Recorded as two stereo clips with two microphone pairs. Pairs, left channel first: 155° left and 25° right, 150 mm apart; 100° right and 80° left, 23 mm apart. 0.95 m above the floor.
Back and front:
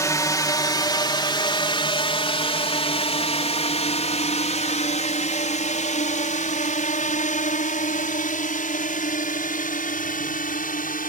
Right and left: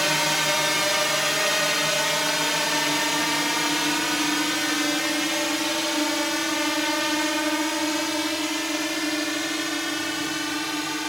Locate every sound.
0.0 s a drone: 140° left; by 11.1 s 160° left